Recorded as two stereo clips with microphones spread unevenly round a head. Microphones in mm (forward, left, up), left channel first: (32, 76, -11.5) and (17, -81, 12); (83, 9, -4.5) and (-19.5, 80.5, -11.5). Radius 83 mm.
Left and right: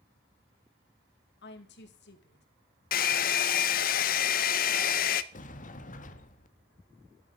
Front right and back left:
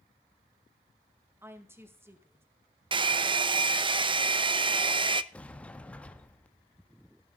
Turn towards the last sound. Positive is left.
turn(degrees=45)